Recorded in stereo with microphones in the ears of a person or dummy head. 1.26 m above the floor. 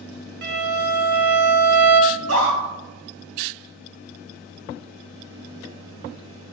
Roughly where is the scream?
Right.